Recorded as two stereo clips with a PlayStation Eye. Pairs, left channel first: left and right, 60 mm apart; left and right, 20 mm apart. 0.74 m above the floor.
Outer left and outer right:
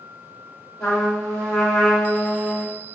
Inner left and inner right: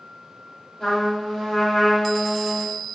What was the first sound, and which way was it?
A trumpet, 70° left (ahead or behind).